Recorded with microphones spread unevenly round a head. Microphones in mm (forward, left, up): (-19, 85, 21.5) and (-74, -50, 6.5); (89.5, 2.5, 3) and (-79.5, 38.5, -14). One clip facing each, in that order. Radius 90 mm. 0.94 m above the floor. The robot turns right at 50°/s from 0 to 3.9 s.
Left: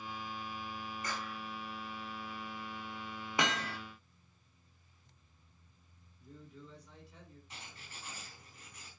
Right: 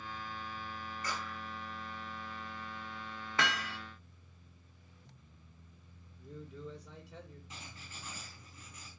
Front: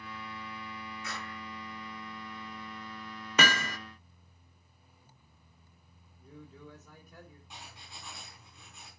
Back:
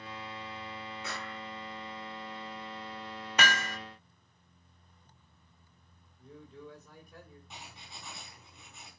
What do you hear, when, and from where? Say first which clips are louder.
1.0 s a clap: right 2 dB, back 2 dB; 135° left, 7.5 m; by 1.4 s 150° left, 7.5 m
3.4 s hammering: left 1 dB, front 2 dB; 10° right, 0.6 m; by 3.8 s 10° left, 0.6 m
6.2 s a man speaking: right 6 dB, back 1 dB; 100° right, 3 m
7.5 s writing: right 2 dB, back 1 dB; 105° right, 3.5 m